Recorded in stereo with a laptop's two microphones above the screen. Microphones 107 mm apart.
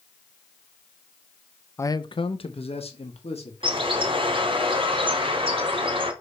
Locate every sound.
1.8 s a man speaking: 25° left (ahead or behind), 0.5 m; by 4.5 s 70° left (ahead or behind), 3 m
3.6 s a bird: 50° right (ahead or behind), 2 m